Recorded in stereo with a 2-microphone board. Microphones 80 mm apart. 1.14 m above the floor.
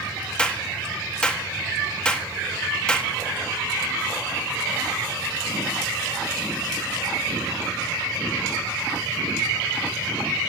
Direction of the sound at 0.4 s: 10° left (ahead or behind).